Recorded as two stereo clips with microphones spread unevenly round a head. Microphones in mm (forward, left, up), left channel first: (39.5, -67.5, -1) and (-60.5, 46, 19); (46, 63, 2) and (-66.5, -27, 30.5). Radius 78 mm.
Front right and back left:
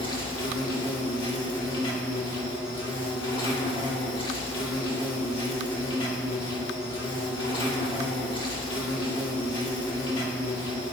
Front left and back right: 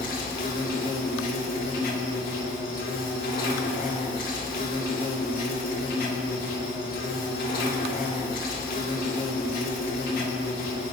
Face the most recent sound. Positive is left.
turn(degrees=10)